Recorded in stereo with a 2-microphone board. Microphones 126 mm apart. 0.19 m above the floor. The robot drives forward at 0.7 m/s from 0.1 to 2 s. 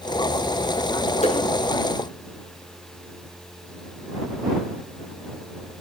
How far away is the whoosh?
About 0.7 m.